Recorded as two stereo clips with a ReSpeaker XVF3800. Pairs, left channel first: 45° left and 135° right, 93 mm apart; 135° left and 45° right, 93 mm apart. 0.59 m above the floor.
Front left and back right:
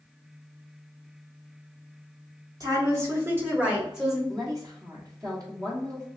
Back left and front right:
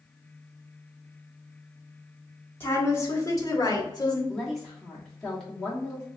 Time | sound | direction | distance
2.6 | a woman speaking | 170° right | 1.4 m
4.3 | a woman speaking | 140° right | 1.5 m